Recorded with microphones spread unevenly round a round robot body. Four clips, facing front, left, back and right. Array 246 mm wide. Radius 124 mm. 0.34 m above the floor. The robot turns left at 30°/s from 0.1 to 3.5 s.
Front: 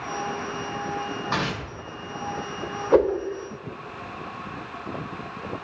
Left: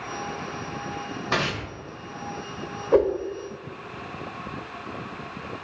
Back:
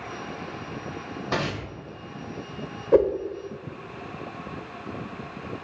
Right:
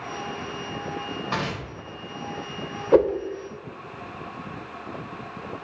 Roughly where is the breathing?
No breathing in this recording.